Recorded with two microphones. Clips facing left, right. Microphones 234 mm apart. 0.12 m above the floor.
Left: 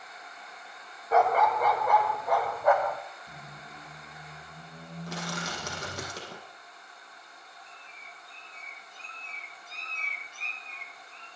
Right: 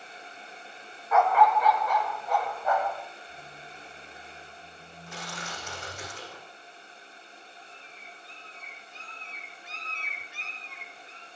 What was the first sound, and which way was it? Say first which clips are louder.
A dog barking: right 1 dB; 35° left (ahead or behind).